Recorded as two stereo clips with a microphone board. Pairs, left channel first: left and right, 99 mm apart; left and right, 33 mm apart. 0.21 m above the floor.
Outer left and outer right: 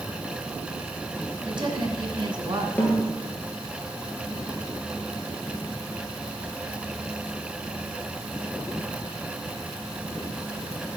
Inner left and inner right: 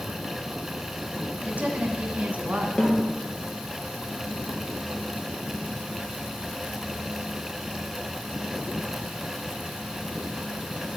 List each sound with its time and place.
1.4 s a woman speaking: 50° right (ahead or behind), 1.8 m
2.8 s a snare drum: 15° left (ahead or behind), 2.5 m